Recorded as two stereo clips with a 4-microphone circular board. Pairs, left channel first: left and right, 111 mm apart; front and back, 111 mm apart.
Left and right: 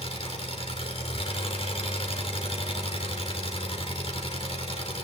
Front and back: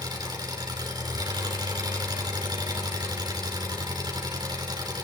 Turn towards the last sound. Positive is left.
turn(degrees=125)